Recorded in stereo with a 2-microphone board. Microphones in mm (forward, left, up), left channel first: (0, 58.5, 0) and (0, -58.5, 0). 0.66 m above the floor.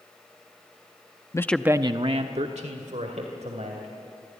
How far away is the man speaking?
About 0.6 m.